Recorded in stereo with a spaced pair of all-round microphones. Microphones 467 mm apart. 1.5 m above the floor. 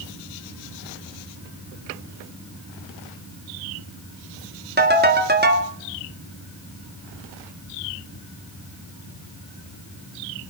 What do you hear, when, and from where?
4.8 s a ringtone: 20° right (ahead or behind), 1.7 m